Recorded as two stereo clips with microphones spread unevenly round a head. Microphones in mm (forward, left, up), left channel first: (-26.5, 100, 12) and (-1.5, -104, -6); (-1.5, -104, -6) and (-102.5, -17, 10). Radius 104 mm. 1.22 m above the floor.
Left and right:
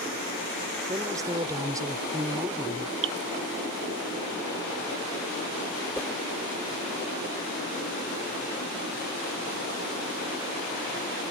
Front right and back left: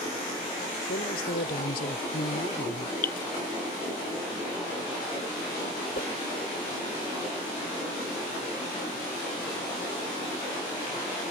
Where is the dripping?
50° right.